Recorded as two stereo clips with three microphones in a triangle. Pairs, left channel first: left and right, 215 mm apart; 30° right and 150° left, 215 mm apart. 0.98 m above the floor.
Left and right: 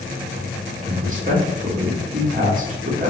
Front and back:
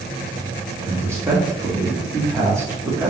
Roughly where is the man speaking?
Behind right.